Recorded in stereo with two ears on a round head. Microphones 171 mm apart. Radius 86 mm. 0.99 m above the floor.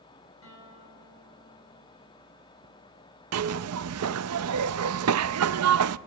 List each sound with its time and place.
0.4 s a guitar: 80° left, 9.5 m
3.3 s a zipper: 85° right, 0.5 m